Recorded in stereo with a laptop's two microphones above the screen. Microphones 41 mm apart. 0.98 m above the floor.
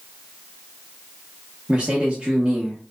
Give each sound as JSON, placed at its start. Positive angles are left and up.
{"t": 1.7, "sound": "a man speaking", "side_deg": -20, "distance_m": 0.6}